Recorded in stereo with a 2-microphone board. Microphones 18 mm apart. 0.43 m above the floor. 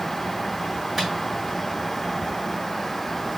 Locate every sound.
1.0 s a microwave: 10° right (ahead or behind), 3 m